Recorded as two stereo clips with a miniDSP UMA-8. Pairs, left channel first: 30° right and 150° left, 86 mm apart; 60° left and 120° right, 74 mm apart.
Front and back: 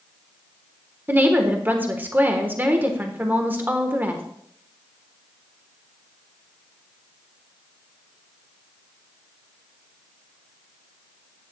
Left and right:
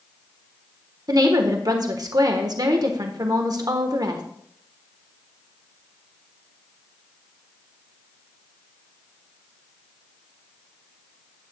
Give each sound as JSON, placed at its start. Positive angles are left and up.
{"t": 1.1, "sound": "a woman speaking", "azimuth_deg": -145, "distance_m": 1.1}